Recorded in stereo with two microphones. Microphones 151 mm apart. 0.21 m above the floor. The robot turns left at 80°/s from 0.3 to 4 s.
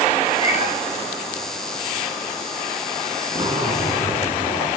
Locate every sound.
0.4 s a cat meowing: 45° left (ahead or behind), 1.1 m; by 0.7 s 70° left (ahead or behind), 1.1 m
3.3 s a zipper: 145° right, 2.5 m; by 4.7 s 160° left, 2.5 m